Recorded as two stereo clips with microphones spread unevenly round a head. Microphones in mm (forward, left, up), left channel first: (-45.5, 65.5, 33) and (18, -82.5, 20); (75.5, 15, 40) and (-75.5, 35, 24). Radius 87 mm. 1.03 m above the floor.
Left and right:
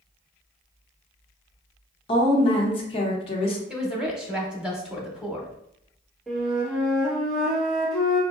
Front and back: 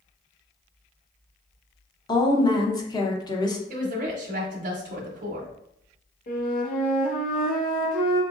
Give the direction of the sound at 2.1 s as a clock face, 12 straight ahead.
10 o'clock.